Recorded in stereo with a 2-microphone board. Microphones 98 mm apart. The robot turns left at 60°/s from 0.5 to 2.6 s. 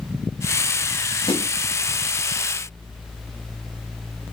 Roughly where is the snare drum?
Left.